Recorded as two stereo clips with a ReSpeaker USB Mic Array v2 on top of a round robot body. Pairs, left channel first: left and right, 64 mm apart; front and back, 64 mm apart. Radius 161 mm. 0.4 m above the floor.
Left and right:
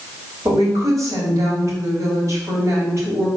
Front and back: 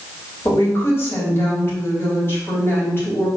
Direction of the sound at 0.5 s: 50° right.